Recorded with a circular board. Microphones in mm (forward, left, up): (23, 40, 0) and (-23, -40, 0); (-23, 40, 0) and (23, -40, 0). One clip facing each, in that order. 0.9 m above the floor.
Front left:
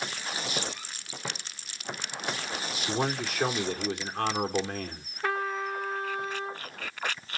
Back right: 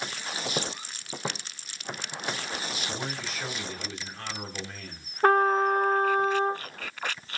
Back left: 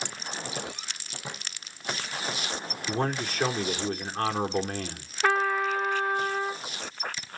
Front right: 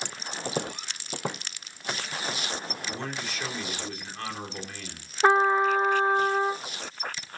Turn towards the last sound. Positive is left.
turn(degrees=-110)